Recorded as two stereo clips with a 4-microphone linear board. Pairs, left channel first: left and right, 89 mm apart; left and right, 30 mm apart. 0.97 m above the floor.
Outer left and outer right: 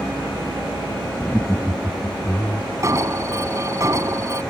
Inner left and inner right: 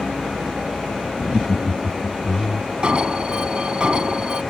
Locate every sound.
1.2 s laughter: centre (ahead or behind); by 2.7 s 30° left (ahead or behind)
2.8 s an alarm: 35° right (ahead or behind)